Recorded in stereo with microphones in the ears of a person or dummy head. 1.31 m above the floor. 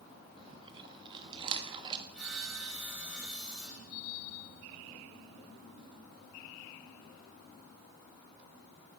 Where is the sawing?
10° right (ahead or behind), 9 m.